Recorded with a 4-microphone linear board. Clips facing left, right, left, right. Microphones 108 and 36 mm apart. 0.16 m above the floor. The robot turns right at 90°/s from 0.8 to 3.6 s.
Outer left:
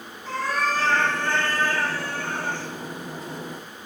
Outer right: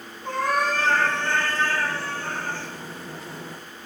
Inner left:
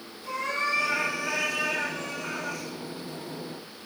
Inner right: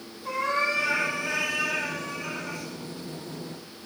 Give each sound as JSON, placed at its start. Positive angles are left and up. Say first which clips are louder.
{"t": 0.2, "sound": "a cat meowing", "louder": "outer right 2 dB, inner right 2 dB", "azimuth_deg": -65, "distance_m": 2.0}